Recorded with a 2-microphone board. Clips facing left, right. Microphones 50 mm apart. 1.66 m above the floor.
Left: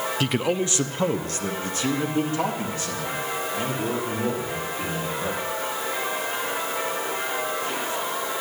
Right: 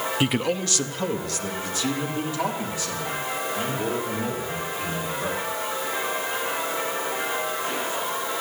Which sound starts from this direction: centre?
A man speaking, at 0.2 s.